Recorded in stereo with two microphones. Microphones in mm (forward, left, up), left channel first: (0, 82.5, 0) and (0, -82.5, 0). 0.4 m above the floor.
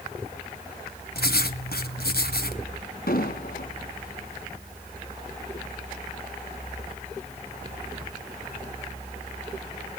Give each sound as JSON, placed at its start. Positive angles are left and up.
{"t": 1.1, "sound": "writing", "side_deg": 70, "distance_m": 1.5}
{"t": 3.1, "sound": "an explosion", "side_deg": 65, "distance_m": 3.5}